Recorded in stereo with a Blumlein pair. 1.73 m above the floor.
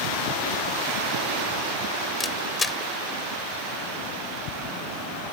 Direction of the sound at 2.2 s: 10° left.